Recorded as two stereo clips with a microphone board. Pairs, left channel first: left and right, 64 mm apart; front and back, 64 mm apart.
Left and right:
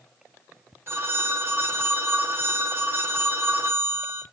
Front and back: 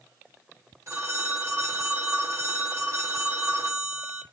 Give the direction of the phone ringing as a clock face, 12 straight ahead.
5 o'clock.